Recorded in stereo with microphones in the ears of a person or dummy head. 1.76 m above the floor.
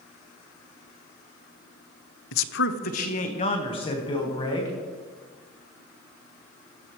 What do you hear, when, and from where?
2.3 s a man speaking: 75° left (ahead or behind), 0.5 m; by 4.8 s 15° left (ahead or behind), 2 m